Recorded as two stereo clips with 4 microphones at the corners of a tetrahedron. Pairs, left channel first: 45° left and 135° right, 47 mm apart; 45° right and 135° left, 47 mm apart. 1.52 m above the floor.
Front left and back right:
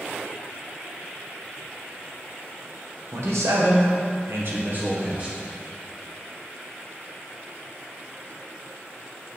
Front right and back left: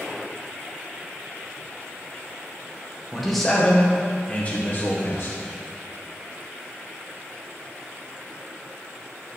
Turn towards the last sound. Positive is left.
turn(degrees=-75)